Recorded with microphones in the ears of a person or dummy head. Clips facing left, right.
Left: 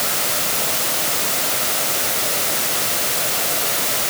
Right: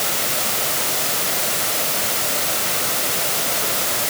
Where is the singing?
I don't hear singing.